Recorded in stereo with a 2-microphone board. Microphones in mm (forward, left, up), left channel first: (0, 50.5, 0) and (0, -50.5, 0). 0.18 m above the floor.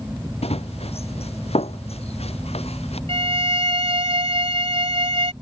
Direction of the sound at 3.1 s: 75° right (ahead or behind).